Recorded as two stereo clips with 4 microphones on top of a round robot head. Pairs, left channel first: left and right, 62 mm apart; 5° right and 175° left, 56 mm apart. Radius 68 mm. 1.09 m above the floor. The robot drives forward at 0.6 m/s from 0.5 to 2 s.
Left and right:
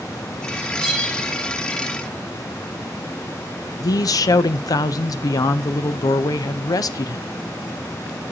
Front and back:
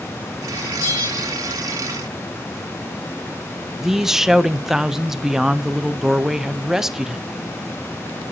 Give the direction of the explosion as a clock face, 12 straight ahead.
No explosion in this recording.